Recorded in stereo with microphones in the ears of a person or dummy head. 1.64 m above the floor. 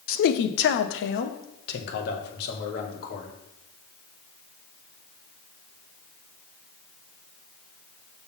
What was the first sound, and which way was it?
A man speaking, 55° left (ahead or behind).